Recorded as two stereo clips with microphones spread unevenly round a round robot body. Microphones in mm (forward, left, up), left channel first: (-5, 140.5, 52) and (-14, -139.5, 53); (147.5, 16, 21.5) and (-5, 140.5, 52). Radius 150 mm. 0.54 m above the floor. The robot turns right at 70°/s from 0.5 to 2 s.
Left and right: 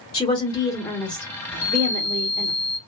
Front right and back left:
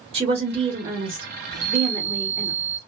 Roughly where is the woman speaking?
Behind left.